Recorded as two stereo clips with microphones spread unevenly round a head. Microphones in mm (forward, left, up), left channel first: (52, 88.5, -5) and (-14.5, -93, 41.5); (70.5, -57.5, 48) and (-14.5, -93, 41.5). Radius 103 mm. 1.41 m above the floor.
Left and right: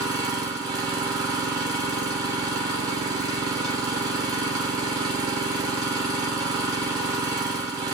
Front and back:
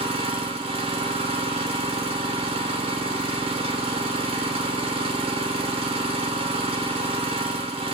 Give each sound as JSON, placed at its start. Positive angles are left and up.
{"t": 0.0, "sound": "an engine running", "azimuth_deg": 175, "distance_m": 0.9}